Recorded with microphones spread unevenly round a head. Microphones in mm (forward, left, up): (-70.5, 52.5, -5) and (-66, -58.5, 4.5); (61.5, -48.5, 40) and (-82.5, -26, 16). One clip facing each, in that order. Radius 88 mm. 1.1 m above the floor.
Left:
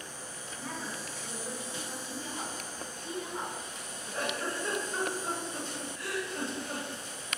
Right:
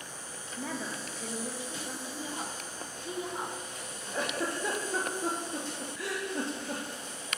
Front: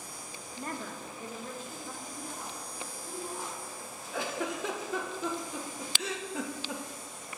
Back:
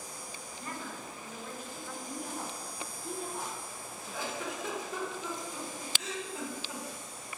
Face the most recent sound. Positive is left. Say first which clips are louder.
# right 2 dB, front 4 dB
turn(degrees=-35)